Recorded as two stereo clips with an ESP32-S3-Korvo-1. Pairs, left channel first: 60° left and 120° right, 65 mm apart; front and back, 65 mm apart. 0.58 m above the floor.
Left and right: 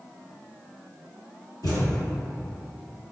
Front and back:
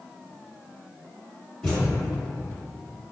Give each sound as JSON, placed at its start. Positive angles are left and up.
{"t": 1.6, "sound": "a thud", "azimuth_deg": 70, "distance_m": 1.7}